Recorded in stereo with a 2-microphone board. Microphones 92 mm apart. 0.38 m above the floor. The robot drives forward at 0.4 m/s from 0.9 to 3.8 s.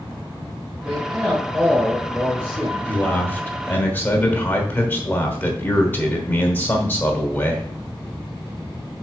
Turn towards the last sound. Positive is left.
turn(degrees=20)  # may be behind; listen again after turning